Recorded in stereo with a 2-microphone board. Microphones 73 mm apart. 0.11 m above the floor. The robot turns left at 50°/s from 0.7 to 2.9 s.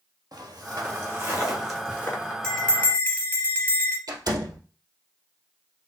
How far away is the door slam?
About 1.9 m.